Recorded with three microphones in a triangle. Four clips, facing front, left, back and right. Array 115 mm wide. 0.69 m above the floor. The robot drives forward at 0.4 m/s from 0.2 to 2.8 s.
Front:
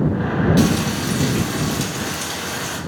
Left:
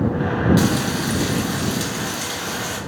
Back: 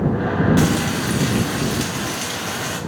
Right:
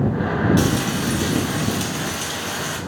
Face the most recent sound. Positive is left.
turn(degrees=175)